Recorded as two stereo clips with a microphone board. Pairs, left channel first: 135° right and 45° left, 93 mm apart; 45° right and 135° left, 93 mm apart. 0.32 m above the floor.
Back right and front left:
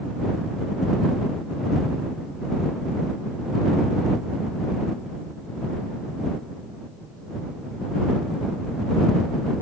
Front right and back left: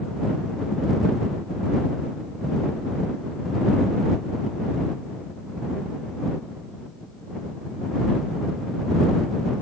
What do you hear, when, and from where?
Only background noise.